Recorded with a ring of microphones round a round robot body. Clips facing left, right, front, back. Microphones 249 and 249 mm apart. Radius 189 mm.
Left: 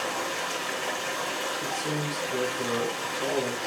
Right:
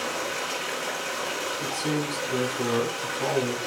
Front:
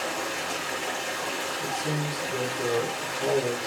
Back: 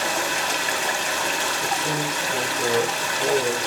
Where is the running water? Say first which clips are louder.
Right 1 dB, back 4 dB; 165° right, 1.4 m.